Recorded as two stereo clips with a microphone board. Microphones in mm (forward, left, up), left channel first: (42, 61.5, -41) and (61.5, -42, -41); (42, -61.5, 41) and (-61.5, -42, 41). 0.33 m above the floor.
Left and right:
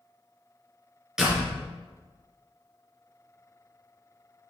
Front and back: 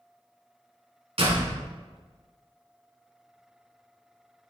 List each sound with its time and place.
1.2 s a door slam: 165° right, 3 m